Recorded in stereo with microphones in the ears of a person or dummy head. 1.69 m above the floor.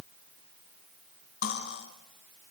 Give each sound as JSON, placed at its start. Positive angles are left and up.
{"t": 1.4, "sound": "cutlery clinking", "side_deg": 60, "distance_m": 5.0}